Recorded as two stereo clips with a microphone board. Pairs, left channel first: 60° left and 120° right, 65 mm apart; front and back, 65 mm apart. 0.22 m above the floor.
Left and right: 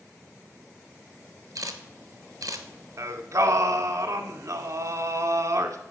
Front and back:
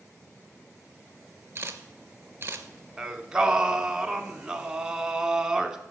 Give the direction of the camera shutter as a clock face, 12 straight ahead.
4 o'clock.